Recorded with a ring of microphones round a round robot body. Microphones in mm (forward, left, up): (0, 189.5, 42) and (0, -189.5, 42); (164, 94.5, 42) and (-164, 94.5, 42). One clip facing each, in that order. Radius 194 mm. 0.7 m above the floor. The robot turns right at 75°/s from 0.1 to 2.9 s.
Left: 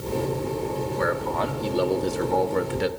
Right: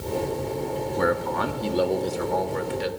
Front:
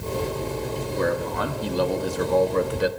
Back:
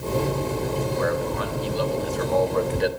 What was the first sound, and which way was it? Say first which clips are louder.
A man speaking: right 4 dB, even; 60° right.